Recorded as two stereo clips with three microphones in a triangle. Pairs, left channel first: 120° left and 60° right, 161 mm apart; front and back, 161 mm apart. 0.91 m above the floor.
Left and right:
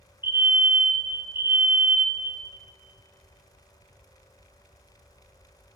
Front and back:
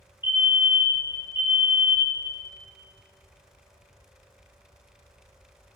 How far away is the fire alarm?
About 1.2 m.